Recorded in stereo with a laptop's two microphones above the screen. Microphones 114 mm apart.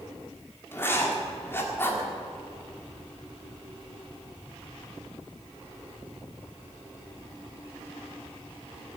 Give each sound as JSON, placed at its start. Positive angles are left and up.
{"t": 0.7, "sound": "writing", "side_deg": 20, "distance_m": 1.8}